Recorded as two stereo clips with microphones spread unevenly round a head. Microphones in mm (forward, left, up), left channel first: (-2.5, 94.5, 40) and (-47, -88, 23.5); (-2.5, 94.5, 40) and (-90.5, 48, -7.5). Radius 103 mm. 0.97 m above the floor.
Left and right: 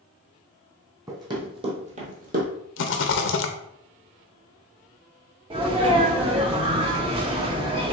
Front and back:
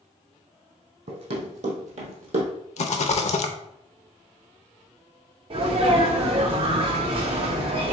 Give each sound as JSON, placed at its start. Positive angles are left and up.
{"t": 1.1, "sound": "running footsteps", "azimuth_deg": -175, "distance_m": 1.9}
{"t": 2.8, "sound": "a rattle", "azimuth_deg": 45, "distance_m": 0.6}
{"t": 5.5, "sound": "a sneeze", "azimuth_deg": -170, "distance_m": 0.7}